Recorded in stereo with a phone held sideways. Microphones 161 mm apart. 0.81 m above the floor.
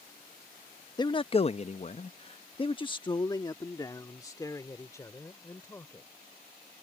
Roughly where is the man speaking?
Left.